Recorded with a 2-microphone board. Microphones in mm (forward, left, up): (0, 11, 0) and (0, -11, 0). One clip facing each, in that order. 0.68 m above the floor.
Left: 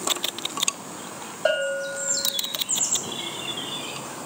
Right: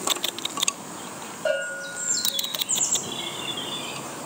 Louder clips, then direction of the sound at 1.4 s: Left 3 dB; 40° left (ahead or behind).